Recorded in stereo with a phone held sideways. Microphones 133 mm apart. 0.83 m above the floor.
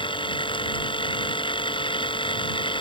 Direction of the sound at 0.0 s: 40° left (ahead or behind).